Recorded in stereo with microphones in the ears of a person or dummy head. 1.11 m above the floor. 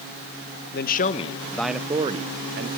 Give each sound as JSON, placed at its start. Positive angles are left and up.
{"t": 0.7, "sound": "a man speaking", "side_deg": 45, "distance_m": 0.8}